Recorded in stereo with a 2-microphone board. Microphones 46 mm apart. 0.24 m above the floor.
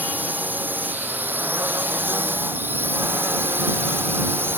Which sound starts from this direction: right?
A drone, at 0.0 s.